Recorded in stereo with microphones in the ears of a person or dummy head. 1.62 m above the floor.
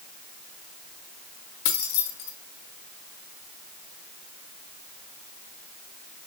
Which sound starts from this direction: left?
Keys jangling, at 1.6 s.